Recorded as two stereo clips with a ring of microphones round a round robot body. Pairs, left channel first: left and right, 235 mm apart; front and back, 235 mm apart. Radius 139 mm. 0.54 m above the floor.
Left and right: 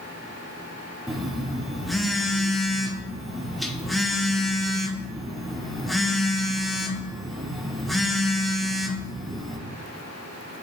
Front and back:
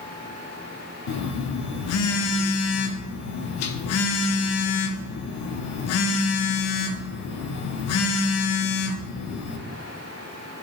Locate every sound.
1.1 s a phone buzzing: straight ahead, 0.6 m